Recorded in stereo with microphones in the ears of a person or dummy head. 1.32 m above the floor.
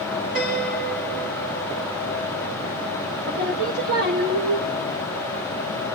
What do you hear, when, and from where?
0.3 s a piano: 40° right (ahead or behind), 7.5 m
3.3 s singing: 40° right (ahead or behind), 1.3 m